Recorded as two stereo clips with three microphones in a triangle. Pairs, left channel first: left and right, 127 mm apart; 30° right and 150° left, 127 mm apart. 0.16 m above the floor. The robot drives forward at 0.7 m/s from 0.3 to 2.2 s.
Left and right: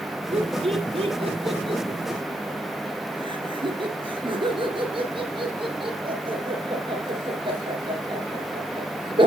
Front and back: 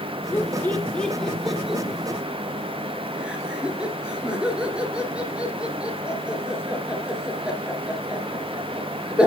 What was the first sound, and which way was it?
Laughter, 100° right.